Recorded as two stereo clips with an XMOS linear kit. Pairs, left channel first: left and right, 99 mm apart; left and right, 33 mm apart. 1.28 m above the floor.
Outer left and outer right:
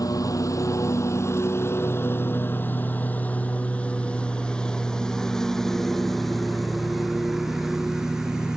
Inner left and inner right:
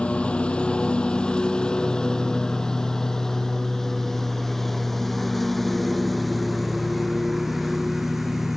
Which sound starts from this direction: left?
A lawn mower, at 0.0 s.